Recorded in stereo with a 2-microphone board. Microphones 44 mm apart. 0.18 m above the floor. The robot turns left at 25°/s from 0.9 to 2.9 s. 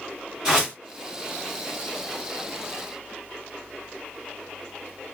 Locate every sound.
0.5 s a whoosh: 15° right (ahead or behind), 1.7 m